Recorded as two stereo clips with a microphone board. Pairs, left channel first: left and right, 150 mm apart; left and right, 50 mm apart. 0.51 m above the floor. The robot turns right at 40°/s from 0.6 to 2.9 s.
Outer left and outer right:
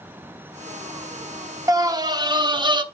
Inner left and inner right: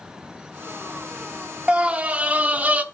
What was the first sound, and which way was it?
A scream, 135° right.